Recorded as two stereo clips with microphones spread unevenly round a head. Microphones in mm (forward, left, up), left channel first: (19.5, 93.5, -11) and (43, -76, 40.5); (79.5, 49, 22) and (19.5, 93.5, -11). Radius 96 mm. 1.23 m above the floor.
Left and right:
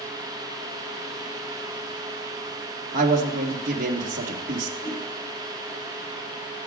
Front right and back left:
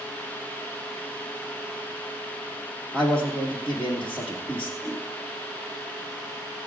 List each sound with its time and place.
2.9 s a man speaking: 130° right, 1.6 m
4.8 s a whoosh: 90° left, 3 m